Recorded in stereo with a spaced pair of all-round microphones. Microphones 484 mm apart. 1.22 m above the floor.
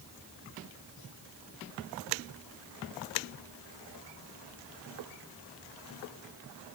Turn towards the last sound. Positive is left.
No sound to turn to.